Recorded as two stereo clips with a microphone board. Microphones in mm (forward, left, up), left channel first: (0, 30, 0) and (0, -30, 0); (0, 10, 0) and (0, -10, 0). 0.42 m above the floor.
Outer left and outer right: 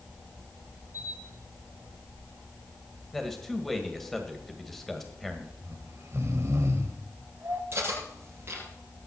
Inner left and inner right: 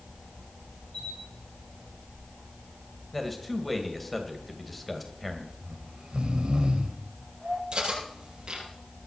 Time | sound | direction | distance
0.9 | a camera shutter | 75° left (ahead or behind) | 7 m
3.1 | a man speaking | 5° left (ahead or behind) | 2 m
5.6 | snoring | 50° right (ahead or behind) | 2 m
7.7 | cutlery clinking | 40° right (ahead or behind) | 7.5 m